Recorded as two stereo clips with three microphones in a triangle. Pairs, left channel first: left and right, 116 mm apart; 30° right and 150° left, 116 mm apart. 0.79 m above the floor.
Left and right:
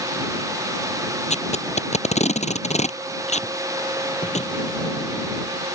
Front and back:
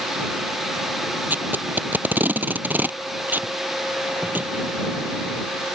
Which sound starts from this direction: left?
Tape being pulled, at 1.3 s.